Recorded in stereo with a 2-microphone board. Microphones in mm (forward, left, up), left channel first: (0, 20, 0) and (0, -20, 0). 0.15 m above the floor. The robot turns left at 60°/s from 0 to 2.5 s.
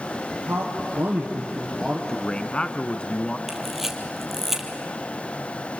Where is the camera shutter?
5° right (ahead or behind), 3 m.